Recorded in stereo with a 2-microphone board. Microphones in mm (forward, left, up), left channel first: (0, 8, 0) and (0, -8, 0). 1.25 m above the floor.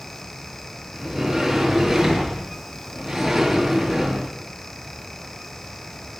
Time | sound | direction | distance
0.9 | a sliding door | 10° right (ahead or behind) | 8.5 m